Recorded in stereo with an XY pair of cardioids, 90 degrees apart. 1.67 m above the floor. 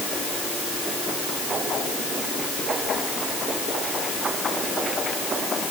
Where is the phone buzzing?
No phone buzzing in this recording.